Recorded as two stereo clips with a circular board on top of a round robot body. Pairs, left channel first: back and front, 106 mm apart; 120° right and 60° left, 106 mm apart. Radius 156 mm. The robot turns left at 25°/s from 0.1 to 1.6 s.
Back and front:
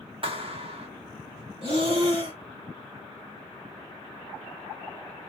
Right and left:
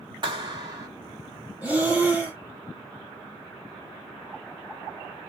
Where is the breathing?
15° right, 2 m.